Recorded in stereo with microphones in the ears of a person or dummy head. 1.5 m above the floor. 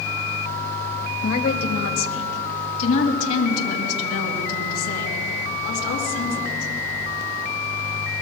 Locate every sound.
1.2 s a woman speaking: 65° left (ahead or behind), 1.4 m; by 6.7 s 85° left, 4.5 m